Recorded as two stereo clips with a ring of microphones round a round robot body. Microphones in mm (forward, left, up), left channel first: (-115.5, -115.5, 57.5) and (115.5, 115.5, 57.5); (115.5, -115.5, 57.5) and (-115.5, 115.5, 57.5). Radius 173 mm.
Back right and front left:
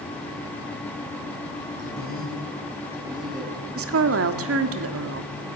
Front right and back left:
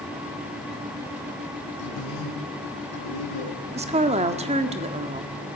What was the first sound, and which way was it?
A man speaking, 15° right.